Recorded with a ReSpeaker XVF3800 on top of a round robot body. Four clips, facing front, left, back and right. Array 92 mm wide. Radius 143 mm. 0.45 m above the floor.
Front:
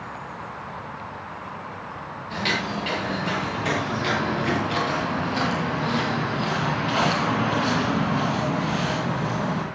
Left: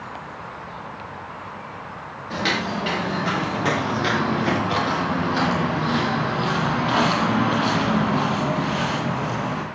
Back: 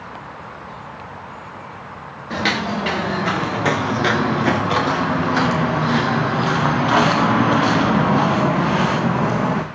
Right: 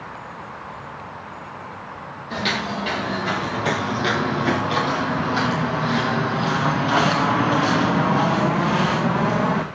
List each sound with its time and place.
2.3 s footsteps: 170° left, 7.5 m; by 9.7 s 140° right, 3 m